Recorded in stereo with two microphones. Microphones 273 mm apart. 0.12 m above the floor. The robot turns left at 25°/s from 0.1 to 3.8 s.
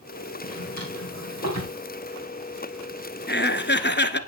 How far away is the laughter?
About 1.3 m.